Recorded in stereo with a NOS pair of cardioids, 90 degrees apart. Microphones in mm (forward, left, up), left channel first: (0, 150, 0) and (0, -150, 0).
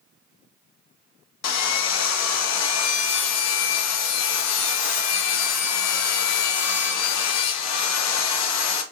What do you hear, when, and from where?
1.4 s sawing: 60° left, 0.6 m